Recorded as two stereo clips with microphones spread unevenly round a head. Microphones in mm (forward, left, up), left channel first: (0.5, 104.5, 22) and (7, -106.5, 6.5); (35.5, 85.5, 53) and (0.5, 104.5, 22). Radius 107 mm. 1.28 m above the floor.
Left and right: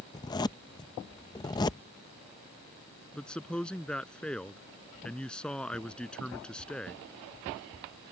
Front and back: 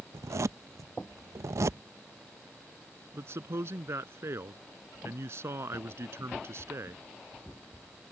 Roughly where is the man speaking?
Behind.